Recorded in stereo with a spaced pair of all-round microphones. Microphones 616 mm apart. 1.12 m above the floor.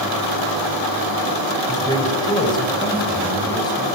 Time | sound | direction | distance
1.7 | a man speaking | 5° left (ahead or behind) | 4.5 m